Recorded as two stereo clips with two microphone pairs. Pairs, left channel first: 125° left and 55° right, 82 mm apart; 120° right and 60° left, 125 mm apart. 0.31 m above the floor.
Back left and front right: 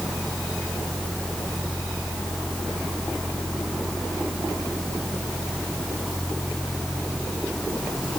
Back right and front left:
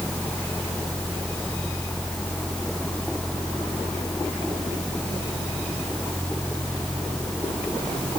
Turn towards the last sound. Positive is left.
No sound to turn to.